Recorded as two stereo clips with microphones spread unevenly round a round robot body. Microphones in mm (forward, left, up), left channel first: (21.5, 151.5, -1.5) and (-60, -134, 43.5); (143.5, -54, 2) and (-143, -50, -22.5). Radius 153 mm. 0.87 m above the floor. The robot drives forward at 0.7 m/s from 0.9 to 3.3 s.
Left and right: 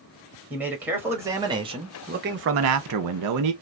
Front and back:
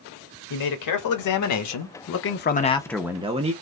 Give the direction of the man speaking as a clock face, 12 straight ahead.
1 o'clock.